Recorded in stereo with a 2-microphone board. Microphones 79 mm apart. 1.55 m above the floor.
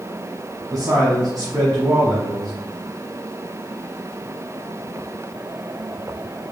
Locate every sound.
0.7 s a man speaking: 55° right (ahead or behind), 0.8 m